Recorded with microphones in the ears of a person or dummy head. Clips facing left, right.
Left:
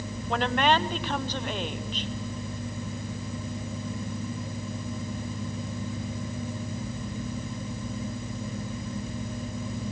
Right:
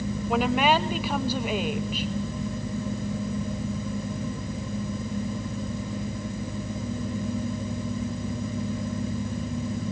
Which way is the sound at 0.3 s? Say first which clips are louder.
Right 2 dB; 10° right (ahead or behind).